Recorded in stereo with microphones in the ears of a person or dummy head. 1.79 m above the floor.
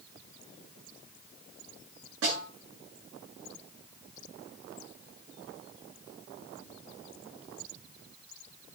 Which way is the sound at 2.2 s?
75° right (ahead or behind).